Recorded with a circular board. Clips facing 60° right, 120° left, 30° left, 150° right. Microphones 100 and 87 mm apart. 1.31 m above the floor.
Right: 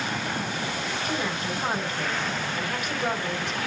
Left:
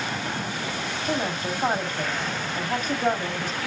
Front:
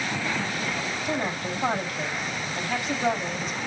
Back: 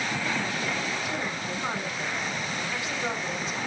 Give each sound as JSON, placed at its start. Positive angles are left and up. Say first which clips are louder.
{"t": 1.1, "sound": "a woman speaking", "louder": "left 4 dB, front 3 dB", "azimuth_deg": 75, "distance_m": 3.5}